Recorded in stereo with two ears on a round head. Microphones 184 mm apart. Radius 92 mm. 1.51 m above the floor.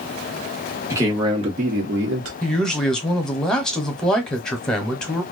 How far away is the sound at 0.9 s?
About 1.3 m.